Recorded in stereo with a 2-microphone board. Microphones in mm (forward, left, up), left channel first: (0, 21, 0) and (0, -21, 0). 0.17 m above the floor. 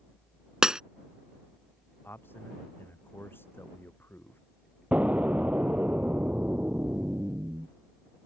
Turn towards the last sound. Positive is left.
turn(degrees=-35)  # may be behind; listen again after turning